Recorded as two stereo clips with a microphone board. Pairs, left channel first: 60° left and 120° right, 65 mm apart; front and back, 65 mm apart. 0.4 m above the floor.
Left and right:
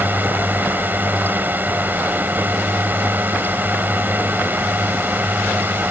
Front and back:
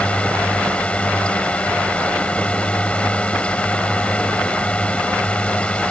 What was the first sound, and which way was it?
A drone, 65° right.